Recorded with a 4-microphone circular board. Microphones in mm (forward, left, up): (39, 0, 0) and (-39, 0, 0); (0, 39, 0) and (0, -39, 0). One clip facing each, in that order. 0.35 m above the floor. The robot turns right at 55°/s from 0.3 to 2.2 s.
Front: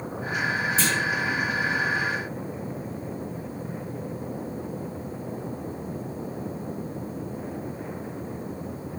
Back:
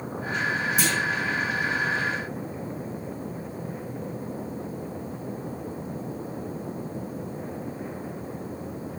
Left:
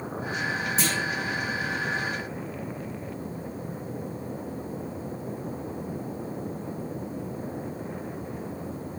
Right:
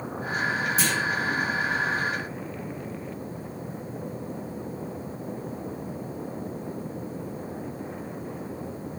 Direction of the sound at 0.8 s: 115° left.